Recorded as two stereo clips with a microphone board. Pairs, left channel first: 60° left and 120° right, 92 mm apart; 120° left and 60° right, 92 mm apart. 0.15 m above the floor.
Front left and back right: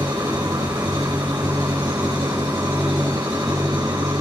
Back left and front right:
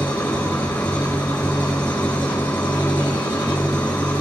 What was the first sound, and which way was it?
An engine running, 175° right.